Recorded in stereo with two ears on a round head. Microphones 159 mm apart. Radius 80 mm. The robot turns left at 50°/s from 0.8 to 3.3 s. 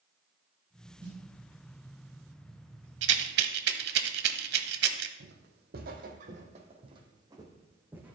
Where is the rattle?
75° right (ahead or behind), 0.9 m; by 5.1 s 65° right (ahead or behind), 0.9 m.